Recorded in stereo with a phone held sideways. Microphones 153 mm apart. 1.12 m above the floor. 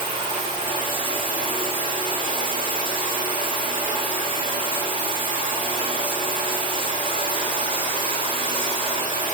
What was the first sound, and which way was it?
Running water, 35° right (ahead or behind).